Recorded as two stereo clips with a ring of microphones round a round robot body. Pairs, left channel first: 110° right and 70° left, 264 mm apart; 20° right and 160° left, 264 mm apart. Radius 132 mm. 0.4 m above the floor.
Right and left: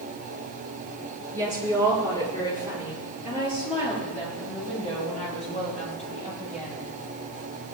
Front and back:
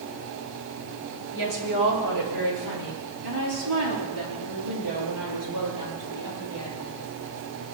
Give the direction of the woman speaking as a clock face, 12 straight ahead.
6 o'clock.